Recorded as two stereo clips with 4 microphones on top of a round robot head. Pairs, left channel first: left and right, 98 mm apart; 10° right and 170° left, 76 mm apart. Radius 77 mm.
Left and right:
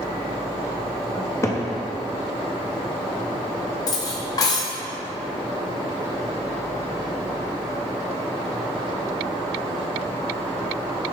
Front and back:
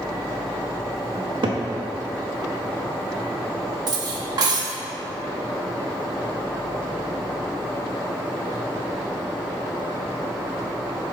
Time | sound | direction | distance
1.1 | a cupboard door | 150° left | 0.6 m
3.9 | cutlery clinking | 140° left | 0.6 m